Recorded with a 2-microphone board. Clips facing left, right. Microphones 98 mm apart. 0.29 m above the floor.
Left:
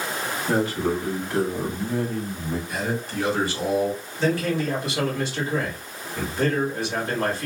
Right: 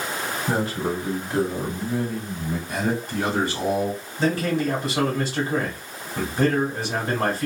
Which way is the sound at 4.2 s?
40° right (ahead or behind).